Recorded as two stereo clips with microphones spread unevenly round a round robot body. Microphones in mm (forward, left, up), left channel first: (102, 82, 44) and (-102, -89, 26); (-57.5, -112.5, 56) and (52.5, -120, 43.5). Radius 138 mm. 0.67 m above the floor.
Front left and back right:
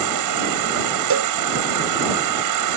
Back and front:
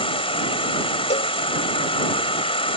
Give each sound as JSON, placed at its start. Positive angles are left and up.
{"t": 0.0, "sound": "an insect", "azimuth_deg": -150}
{"t": 1.1, "sound": "a cowbell", "azimuth_deg": -170}